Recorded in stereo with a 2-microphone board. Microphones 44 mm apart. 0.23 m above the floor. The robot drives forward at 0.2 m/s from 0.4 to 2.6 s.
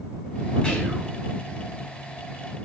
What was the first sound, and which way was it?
Whispering, 25° left (ahead or behind).